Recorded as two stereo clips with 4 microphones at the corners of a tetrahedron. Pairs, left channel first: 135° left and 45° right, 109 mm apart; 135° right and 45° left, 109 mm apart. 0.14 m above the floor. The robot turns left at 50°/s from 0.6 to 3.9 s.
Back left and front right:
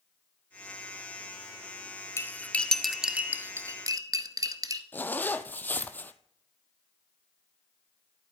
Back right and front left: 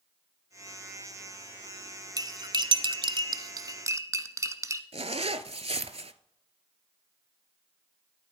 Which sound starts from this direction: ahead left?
A zipper, at 4.9 s.